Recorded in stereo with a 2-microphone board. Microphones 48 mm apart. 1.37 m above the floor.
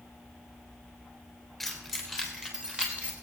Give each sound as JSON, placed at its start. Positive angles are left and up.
{"t": 1.6, "sound": "keys jangling", "side_deg": 0, "distance_m": 3.5}